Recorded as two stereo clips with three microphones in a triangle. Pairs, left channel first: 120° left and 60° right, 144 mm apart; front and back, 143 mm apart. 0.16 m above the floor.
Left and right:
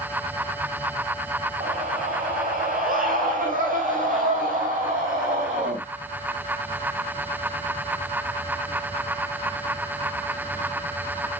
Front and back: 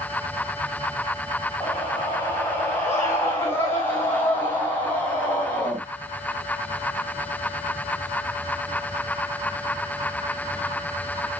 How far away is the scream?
About 8 m.